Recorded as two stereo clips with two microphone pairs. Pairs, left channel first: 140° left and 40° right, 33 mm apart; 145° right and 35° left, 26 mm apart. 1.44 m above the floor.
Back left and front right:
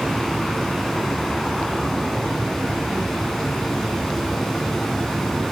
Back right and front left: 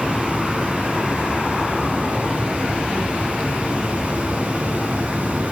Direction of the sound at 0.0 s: 60° left.